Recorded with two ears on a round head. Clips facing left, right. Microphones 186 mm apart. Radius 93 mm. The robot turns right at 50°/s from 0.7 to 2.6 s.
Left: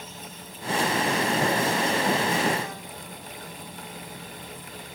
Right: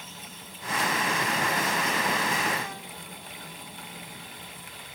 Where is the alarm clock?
I don't hear an alarm clock.